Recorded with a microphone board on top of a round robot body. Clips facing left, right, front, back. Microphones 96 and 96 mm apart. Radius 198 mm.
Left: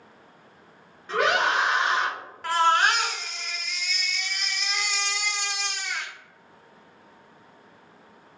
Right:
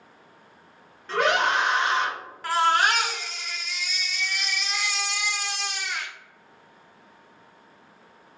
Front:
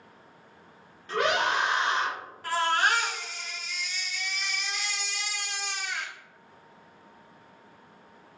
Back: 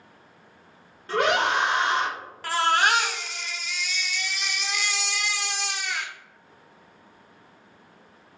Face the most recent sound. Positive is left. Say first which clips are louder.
# even, back 3 dB
turn(degrees=180)